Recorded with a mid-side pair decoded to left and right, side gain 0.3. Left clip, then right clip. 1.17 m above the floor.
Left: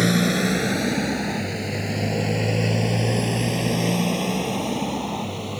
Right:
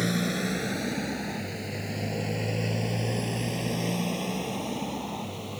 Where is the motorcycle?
70° left; by 5.6 s 60° left.